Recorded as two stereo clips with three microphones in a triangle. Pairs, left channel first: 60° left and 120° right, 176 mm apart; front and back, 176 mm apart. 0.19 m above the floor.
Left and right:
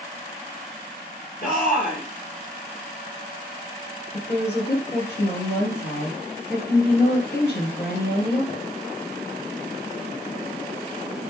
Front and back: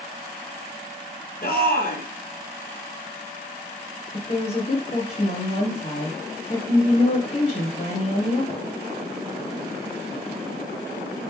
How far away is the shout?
About 4.5 m.